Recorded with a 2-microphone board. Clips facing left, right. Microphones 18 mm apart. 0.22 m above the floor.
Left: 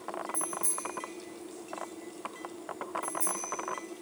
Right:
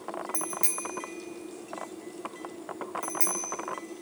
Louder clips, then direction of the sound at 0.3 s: Right 2 dB; 60° right (ahead or behind).